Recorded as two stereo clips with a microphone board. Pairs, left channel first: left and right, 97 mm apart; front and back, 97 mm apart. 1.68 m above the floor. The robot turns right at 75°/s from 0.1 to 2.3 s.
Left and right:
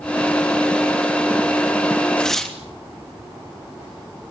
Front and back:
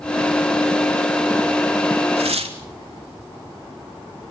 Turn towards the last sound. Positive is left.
turn(degrees=175)